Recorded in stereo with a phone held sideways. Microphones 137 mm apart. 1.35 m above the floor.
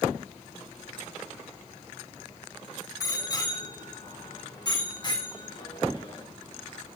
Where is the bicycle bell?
25° left (ahead or behind), 9.5 m; by 6.2 s 35° left (ahead or behind), 7.5 m.